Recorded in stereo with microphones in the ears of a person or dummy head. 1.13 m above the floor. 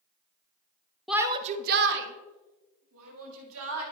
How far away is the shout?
About 0.7 m.